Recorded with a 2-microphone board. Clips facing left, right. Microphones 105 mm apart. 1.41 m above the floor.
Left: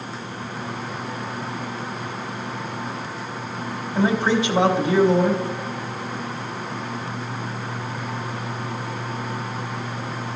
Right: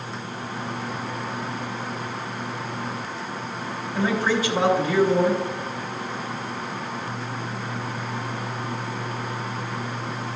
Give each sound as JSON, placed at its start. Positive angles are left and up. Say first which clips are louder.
{"t": 4.0, "sound": "a man speaking", "louder": "left 3 dB", "side_deg": 25, "distance_m": 3.0}